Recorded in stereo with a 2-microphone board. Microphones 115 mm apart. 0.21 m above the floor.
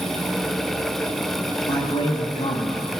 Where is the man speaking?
60° left (ahead or behind), 4 m.